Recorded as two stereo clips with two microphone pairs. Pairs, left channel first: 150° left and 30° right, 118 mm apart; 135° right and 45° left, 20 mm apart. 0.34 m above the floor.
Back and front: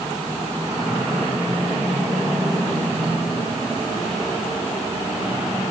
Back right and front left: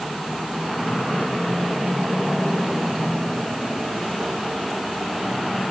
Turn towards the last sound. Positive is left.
No sound to turn to.